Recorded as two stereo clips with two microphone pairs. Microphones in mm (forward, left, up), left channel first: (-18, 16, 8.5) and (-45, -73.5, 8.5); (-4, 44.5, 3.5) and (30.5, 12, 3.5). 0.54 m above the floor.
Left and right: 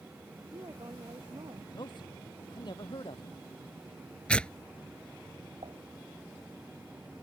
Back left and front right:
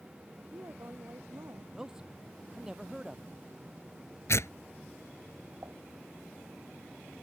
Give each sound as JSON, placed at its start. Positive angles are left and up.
{"t": 0.4, "sound": "a woman speaking", "azimuth_deg": -65}
{"t": 1.7, "sound": "a man speaking", "azimuth_deg": 35}
{"t": 4.3, "sound": "tearing paper", "azimuth_deg": 155}
{"t": 5.6, "sound": "dishes clattering", "azimuth_deg": -80}